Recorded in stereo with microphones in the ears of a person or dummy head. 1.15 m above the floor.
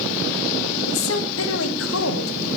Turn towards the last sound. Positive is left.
turn(degrees=75)  # may be behind; listen again after turning